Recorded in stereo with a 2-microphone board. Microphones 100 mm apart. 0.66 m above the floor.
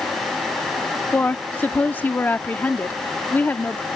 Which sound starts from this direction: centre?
A woman speaking, at 1.1 s.